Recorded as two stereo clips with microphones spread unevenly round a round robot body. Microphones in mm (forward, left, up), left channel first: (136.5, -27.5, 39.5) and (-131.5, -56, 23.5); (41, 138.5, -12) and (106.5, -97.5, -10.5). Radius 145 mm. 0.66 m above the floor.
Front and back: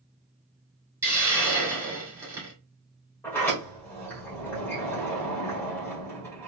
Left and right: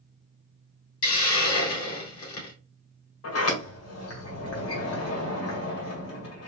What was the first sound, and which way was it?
A hiss, 110° left.